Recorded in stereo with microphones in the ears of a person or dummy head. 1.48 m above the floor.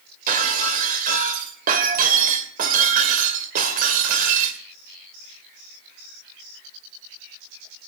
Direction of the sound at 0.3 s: 55° right (ahead or behind).